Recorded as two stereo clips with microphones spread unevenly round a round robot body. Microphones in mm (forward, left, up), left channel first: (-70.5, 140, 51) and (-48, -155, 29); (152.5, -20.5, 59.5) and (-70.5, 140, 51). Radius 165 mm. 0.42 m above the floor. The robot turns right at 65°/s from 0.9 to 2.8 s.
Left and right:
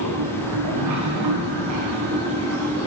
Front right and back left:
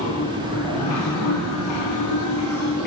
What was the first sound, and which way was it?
Running water, 105° right.